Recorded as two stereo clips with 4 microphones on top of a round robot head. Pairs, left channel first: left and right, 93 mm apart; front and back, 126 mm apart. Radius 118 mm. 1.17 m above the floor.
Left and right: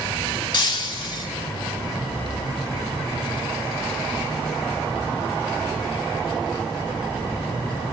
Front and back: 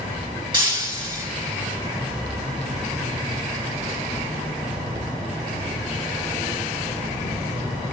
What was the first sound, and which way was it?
Breaking glass, 130° left.